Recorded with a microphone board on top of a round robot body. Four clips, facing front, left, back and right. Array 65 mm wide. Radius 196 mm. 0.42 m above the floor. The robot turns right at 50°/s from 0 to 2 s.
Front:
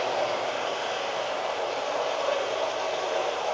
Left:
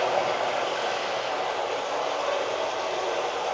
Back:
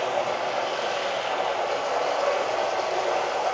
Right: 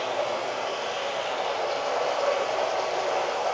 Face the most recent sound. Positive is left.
turn(degrees=-155)